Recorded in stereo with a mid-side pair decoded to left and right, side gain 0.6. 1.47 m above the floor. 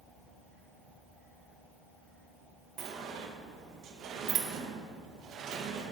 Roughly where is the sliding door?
Ahead right.